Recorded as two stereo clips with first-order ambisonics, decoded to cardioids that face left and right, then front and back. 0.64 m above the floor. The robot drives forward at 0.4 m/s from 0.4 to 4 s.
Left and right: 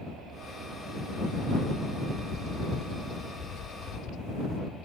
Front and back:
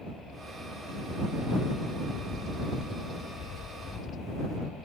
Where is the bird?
45° left; by 4.6 s 55° left.